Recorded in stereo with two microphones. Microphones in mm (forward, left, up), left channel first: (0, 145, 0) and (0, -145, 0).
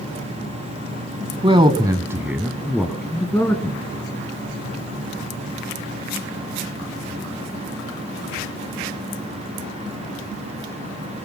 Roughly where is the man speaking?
Centre.